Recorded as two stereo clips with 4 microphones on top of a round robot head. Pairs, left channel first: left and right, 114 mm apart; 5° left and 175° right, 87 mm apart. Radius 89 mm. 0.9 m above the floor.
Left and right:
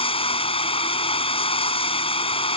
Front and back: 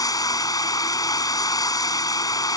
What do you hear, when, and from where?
0.0 s running water: 50° left